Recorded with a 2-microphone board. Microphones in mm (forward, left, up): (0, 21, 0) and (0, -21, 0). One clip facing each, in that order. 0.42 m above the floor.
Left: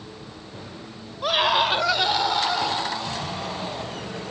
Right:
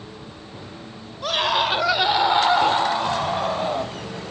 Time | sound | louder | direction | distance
1.2 | a scream | left 1 dB | 10° left (ahead or behind) | 2 m